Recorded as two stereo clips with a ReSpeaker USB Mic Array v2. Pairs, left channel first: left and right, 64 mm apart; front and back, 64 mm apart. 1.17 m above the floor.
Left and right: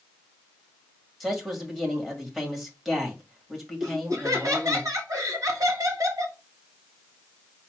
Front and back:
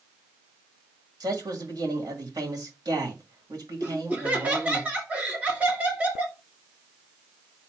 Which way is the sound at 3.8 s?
115° right.